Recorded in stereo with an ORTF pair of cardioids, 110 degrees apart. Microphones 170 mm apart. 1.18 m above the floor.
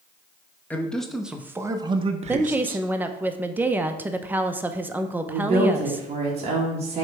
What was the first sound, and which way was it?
A man speaking, 10° left.